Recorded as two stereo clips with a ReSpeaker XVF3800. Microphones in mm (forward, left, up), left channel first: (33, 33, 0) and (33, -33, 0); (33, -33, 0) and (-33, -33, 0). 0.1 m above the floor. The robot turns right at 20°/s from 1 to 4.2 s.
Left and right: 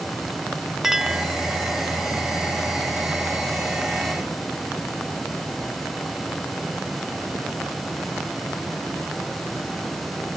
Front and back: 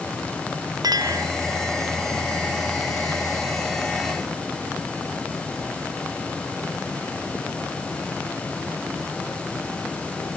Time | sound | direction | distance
0.8 | a clink | 175° right | ?